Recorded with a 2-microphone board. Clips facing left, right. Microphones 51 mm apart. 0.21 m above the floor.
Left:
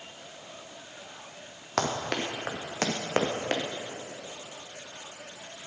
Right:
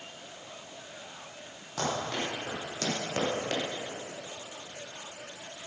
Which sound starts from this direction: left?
Running footsteps, at 1.8 s.